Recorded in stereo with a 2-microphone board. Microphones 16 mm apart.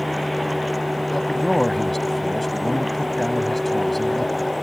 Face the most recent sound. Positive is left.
turn(degrees=15)  # may be behind; listen again after turning